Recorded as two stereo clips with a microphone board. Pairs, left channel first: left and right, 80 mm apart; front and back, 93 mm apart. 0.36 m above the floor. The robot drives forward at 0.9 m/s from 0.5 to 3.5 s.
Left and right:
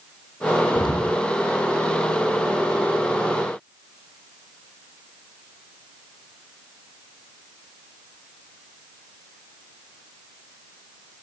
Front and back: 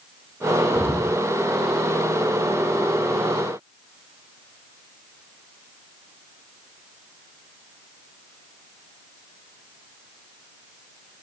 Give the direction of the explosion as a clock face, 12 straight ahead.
10 o'clock.